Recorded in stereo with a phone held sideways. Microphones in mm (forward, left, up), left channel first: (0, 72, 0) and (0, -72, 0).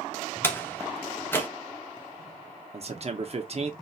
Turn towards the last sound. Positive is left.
turn(degrees=-45)  # may be behind; listen again after turning